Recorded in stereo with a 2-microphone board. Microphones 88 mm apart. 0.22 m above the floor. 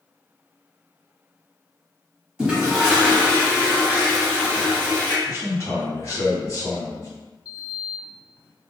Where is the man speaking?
35° left (ahead or behind), 1.6 m.